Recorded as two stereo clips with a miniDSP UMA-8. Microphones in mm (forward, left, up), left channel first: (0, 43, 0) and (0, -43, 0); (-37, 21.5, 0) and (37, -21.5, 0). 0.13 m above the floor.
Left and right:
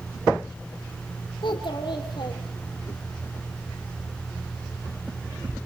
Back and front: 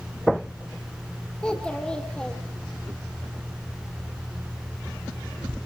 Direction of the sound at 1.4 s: 70° left.